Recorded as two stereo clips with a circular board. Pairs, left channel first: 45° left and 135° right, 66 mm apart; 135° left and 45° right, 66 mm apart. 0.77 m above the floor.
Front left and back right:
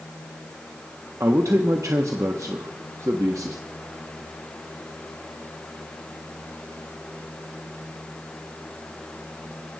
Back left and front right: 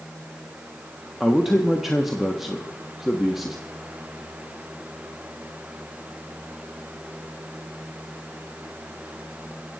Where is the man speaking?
130° right, 1.2 m.